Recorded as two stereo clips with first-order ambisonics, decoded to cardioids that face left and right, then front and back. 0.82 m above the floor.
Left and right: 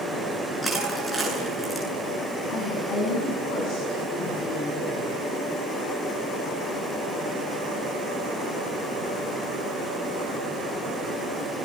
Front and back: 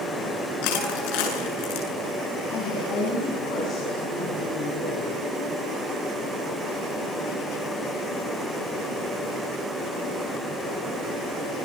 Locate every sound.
0.6 s crushing: straight ahead, 8.5 m
2.5 s a woman speaking: 45° left, 7 m